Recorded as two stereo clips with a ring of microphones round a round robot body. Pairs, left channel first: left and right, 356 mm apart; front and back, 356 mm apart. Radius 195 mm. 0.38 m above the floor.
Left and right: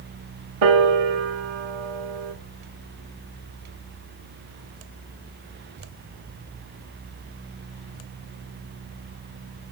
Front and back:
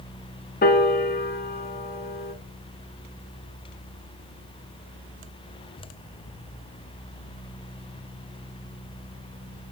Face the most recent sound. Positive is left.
turn(degrees=-65)